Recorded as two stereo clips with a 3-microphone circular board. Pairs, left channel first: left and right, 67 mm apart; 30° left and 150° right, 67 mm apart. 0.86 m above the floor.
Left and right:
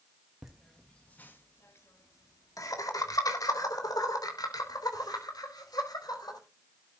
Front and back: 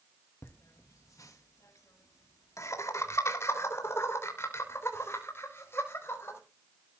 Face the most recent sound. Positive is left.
turn(degrees=85)